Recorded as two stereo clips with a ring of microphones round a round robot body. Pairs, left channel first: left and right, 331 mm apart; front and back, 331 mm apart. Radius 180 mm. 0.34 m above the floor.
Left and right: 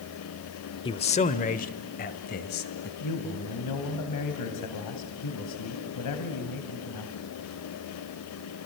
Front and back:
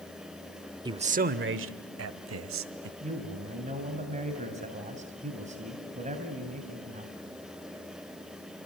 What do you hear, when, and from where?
0.8 s a man speaking: 130° left, 0.9 m; by 2.9 s 150° left, 1.9 m
3.0 s a man speaking: 115° left, 2.5 m